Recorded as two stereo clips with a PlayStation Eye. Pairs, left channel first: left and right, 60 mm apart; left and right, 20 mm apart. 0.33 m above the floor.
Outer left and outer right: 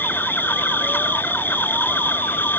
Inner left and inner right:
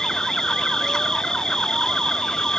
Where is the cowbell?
I don't hear a cowbell.